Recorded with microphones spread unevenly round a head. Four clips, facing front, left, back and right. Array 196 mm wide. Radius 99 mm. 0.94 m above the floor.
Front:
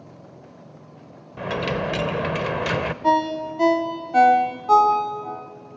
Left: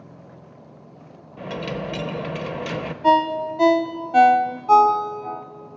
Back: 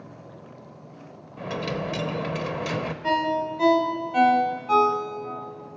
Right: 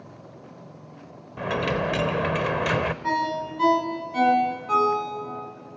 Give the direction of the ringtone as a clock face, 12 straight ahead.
10 o'clock.